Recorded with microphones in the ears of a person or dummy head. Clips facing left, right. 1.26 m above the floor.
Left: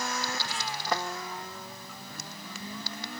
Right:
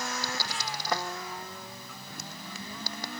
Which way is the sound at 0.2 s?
45° right (ahead or behind).